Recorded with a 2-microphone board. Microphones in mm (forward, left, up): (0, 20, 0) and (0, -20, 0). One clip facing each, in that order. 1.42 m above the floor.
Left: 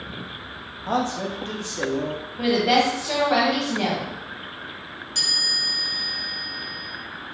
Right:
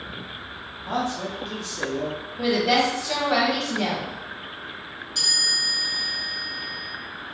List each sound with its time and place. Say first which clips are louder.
0.9 s a man speaking: left 3 dB; 70° left (ahead or behind), 0.7 m; by 2.2 s 30° left (ahead or behind), 0.8 m
2.4 s a woman speaking: left 1 dB; 15° left (ahead or behind), 1.4 m
5.2 s a chime: right 1 dB; 65° left (ahead or behind), 1.0 m